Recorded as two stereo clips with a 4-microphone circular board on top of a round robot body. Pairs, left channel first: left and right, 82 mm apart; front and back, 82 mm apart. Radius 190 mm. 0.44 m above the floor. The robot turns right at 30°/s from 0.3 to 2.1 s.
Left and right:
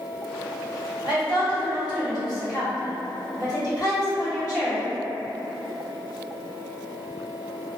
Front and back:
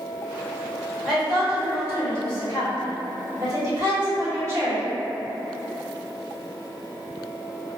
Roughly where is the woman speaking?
Left.